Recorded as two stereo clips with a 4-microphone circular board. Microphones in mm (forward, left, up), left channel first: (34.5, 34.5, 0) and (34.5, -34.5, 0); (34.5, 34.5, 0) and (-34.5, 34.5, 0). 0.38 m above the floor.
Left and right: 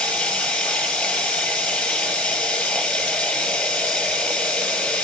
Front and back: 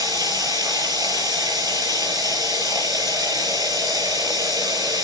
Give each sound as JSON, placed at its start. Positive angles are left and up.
{"t": 0.0, "sound": "running water", "azimuth_deg": 170, "distance_m": 9.0}